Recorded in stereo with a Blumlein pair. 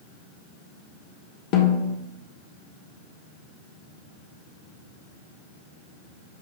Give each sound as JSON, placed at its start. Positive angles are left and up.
{"t": 1.5, "sound": "a snare drum", "azimuth_deg": 40, "distance_m": 1.5}